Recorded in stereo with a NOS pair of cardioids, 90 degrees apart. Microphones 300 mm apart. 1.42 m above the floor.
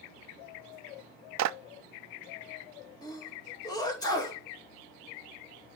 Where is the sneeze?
15° left, 2.5 m.